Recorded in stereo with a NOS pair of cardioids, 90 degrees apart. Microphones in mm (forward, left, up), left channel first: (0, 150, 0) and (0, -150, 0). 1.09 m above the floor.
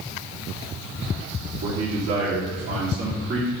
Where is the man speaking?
65° right, 2.5 m; by 3.5 s 45° right, 3 m.